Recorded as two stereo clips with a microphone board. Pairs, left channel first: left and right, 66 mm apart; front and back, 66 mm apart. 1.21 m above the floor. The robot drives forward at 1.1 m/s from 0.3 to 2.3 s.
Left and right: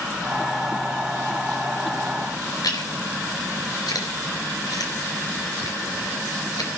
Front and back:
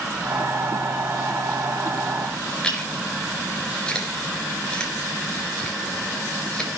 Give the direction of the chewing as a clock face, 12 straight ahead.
9 o'clock.